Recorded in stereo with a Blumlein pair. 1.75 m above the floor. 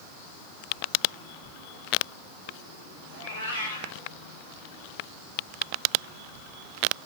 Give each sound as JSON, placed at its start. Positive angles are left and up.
{"t": 3.1, "sound": "a cat meowing", "azimuth_deg": 70, "distance_m": 3.0}